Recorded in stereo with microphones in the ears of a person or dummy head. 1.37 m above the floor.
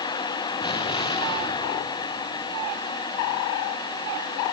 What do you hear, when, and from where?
0.6 s an explosion: 25° left (ahead or behind), 2.5 m